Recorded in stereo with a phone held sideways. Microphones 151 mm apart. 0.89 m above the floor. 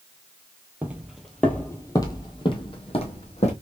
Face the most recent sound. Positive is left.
turn(degrees=50)  # may be behind; listen again after turning